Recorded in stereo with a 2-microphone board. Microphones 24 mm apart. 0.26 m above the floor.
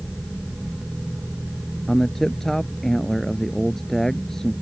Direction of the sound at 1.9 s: 15° left (ahead or behind).